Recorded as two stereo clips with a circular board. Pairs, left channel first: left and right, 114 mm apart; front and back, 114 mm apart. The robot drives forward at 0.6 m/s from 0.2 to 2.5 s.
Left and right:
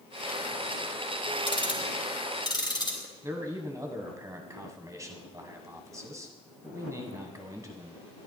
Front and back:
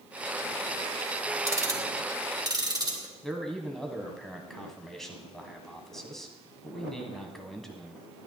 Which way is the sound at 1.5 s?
120° left.